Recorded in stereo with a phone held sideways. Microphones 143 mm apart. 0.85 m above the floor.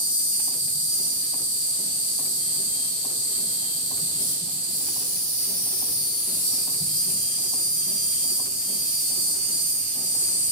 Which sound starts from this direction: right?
An insect, at 0.0 s.